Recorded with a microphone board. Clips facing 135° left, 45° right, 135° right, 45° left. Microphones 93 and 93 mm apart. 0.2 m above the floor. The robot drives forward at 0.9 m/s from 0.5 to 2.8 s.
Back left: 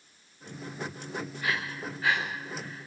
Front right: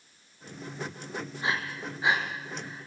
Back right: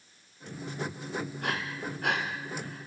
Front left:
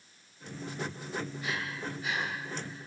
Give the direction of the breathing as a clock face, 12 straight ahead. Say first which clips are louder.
Front right 2 dB, back right 2 dB; 4 o'clock.